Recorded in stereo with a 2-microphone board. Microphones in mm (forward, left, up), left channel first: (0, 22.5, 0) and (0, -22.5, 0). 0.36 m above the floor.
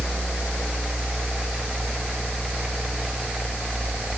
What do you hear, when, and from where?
Only background noise.